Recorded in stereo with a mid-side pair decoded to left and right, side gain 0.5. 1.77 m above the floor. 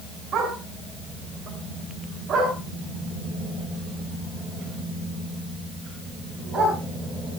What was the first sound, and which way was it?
A dog barking, 55° right.